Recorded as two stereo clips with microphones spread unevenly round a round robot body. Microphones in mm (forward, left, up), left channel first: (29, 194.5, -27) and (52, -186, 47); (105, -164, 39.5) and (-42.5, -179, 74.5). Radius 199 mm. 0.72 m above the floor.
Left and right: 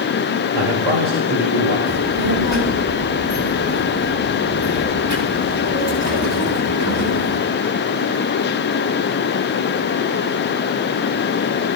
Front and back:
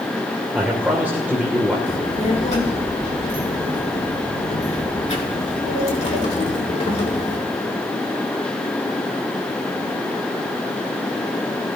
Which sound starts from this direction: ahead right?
A child speaking, at 1.9 s.